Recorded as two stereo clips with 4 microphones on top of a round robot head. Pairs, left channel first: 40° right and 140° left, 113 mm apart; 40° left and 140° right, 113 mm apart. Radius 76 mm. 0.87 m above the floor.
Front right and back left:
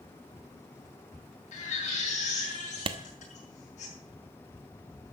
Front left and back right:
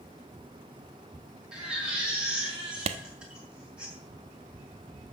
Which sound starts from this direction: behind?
A clap, at 2.9 s.